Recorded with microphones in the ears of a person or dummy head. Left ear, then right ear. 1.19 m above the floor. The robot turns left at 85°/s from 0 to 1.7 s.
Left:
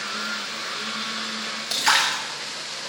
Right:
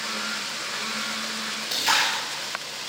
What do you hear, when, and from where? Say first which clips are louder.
1.7 s a splash: left 2 dB; 40° left (ahead or behind), 1.0 m